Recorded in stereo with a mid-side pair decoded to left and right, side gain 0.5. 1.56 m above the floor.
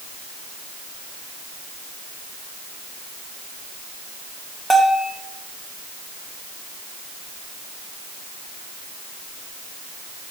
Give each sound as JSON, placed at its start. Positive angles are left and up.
{"t": 4.7, "sound": "a bell", "azimuth_deg": 0, "distance_m": 3.0}